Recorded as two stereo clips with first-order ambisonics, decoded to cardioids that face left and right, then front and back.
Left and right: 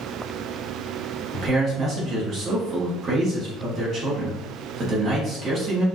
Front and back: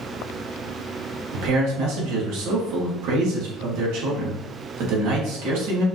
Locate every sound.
1.3 s a man speaking: 155° right, 2.5 m